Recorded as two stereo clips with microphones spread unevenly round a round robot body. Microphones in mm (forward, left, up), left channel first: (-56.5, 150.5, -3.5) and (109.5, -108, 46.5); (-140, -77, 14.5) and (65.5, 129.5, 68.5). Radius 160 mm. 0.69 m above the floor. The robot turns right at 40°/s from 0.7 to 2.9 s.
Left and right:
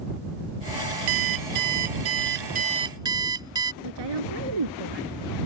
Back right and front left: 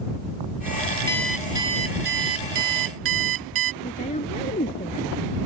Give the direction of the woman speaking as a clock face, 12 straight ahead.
2 o'clock.